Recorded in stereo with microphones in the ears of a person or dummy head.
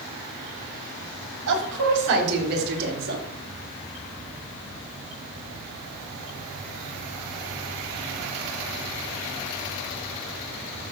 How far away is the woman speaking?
About 4 m.